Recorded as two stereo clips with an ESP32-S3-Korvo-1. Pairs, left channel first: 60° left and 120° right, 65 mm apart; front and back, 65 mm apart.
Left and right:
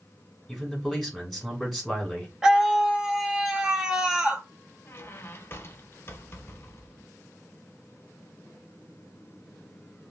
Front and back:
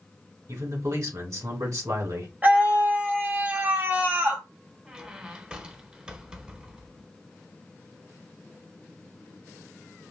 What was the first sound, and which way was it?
A man speaking, 155° left.